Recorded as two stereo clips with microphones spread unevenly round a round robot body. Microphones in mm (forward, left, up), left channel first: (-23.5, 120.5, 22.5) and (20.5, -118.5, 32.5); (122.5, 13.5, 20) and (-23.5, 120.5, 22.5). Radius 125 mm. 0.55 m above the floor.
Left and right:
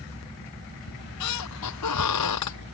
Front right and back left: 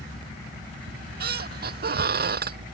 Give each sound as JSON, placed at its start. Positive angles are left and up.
{"t": 0.9, "sound": "a squeak", "azimuth_deg": 115}